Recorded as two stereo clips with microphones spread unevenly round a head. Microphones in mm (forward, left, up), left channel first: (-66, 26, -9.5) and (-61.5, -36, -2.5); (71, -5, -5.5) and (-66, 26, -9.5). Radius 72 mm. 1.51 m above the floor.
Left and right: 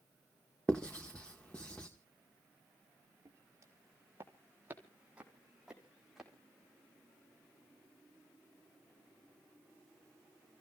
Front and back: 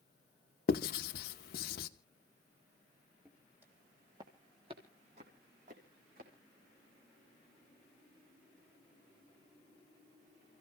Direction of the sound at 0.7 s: 10° left.